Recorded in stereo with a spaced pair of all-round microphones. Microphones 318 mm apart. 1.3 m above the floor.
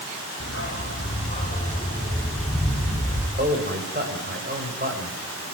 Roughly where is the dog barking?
Left.